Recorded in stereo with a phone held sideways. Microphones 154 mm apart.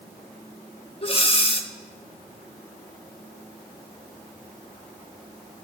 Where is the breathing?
40° left (ahead or behind), 1.5 m.